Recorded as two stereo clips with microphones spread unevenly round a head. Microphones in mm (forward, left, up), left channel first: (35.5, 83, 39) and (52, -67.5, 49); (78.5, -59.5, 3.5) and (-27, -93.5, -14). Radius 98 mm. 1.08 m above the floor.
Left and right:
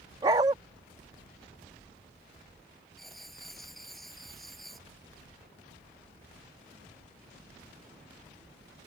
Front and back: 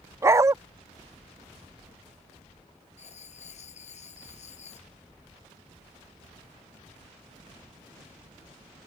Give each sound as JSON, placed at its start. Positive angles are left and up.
{"t": 0.2, "sound": "a dog barking", "azimuth_deg": -110}
{"t": 3.0, "sound": "writing", "azimuth_deg": 5}